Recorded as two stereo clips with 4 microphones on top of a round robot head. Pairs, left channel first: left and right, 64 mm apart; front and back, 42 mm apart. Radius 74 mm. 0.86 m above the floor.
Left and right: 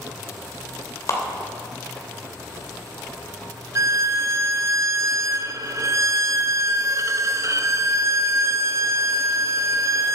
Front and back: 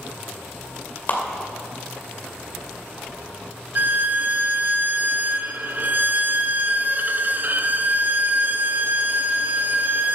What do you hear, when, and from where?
1.1 s a clap: 50° left, 2.5 m
3.8 s a violin: 130° right, 0.6 m